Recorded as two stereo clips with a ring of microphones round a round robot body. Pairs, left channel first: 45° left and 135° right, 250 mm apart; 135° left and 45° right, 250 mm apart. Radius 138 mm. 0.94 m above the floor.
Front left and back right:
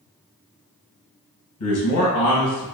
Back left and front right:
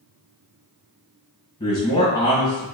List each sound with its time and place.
1.6 s a man speaking: 60° left, 1.3 m